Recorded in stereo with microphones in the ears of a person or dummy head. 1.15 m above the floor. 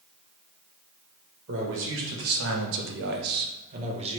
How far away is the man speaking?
About 1.1 m.